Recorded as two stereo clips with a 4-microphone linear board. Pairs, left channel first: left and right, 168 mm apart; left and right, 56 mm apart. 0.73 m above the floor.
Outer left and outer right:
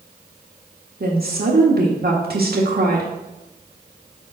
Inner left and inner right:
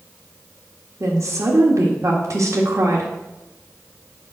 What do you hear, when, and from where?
1.0 s a woman speaking: 65° right (ahead or behind), 1.4 m